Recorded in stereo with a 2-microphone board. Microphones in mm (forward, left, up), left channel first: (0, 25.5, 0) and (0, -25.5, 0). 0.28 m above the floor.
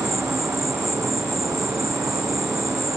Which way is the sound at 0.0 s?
90° right.